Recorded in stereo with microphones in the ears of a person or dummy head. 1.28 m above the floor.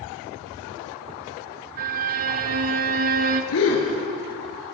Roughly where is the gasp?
Left.